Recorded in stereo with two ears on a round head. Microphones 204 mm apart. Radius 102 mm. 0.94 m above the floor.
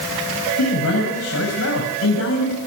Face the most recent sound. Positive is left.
turn(degrees=70)  # may be behind; listen again after turning